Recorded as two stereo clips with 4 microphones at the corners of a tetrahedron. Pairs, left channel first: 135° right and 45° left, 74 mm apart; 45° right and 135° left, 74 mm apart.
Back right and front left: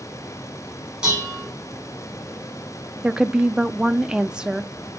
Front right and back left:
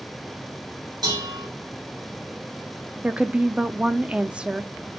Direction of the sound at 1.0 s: 120° left.